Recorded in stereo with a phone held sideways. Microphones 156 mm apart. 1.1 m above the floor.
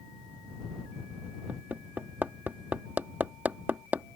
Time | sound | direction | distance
1.5 | hammering | 10° right (ahead or behind) | ?